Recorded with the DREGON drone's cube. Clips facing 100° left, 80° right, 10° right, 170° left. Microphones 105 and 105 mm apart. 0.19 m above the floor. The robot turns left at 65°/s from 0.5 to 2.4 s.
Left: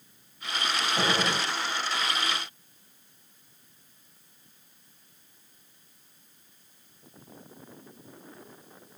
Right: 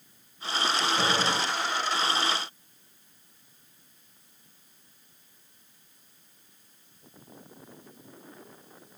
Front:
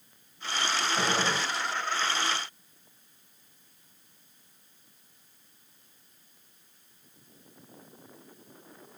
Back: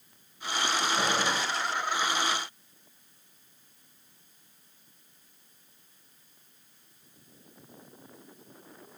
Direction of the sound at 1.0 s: 60° left.